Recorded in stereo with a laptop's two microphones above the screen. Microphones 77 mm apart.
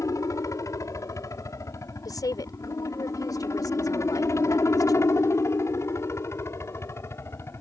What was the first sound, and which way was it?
A helicopter, 45° left (ahead or behind).